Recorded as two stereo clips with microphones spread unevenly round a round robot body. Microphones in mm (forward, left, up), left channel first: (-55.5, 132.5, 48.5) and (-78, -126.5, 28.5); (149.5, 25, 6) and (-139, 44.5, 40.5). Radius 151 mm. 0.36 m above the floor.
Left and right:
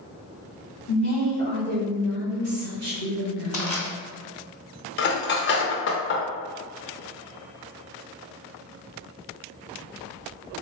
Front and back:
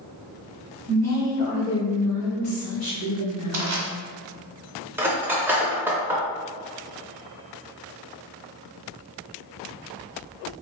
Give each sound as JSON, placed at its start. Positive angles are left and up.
{"t": 0.9, "sound": "a woman speaking", "azimuth_deg": 50, "distance_m": 1.5}
{"t": 3.5, "sound": "crushing", "azimuth_deg": 150, "distance_m": 1.3}
{"t": 5.0, "sound": "cutlery clinking", "azimuth_deg": 85, "distance_m": 0.6}